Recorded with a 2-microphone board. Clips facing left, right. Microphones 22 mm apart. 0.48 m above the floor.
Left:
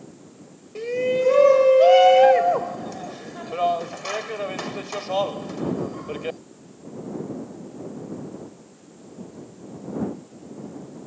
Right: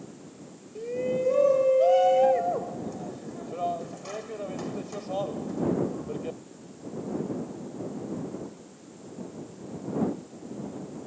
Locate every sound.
0.8 s a shout: 65° left (ahead or behind)